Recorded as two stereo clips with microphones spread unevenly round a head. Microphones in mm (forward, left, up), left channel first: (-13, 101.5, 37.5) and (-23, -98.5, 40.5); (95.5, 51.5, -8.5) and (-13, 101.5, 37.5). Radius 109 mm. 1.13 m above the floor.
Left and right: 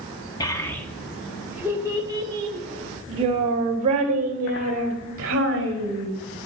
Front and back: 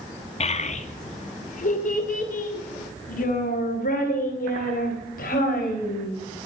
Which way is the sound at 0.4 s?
15° left.